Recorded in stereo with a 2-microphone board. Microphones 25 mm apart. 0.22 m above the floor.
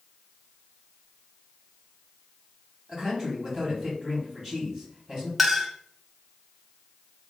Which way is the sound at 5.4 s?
10° right (ahead or behind).